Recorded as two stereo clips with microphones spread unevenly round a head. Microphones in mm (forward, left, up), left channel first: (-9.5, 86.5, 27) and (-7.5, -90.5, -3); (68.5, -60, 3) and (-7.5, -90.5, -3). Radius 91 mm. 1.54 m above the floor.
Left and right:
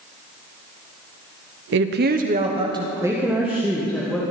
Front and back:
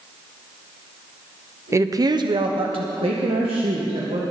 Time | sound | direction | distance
1.7 | a woman speaking | 100° right | 1.0 m